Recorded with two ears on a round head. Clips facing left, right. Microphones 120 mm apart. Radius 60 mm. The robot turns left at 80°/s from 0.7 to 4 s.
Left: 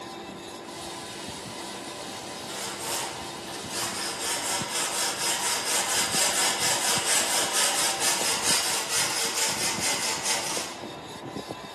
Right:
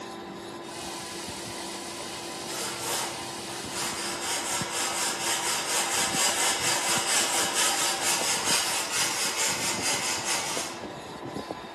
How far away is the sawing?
About 2.5 m.